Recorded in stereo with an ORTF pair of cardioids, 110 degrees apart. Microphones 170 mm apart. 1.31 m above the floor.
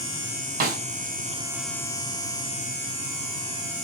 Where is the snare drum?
60° right, 0.8 m.